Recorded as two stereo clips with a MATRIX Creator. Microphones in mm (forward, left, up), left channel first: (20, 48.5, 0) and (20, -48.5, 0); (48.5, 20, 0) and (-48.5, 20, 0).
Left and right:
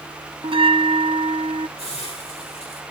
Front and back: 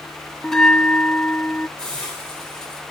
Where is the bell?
85° right, 0.7 m.